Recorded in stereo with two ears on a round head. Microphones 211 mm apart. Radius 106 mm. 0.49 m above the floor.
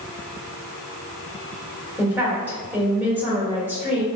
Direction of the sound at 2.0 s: 10° right (ahead or behind).